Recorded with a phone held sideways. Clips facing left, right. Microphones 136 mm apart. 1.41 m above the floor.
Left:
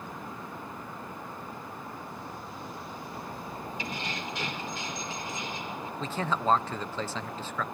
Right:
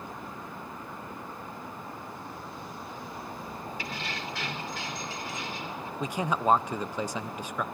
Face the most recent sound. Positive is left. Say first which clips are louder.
# right 2 dB
turn(degrees=-15)  # may be behind; listen again after turning